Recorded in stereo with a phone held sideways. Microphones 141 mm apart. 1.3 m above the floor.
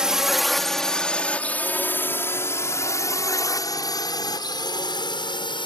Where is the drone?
5° right (ahead or behind); by 5.7 s 35° left (ahead or behind).